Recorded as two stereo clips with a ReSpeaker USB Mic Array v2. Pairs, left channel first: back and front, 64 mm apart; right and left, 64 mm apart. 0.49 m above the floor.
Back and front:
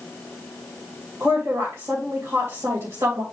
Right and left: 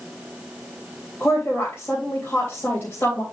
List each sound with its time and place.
1.2 s a woman speaking: 30° right, 3 m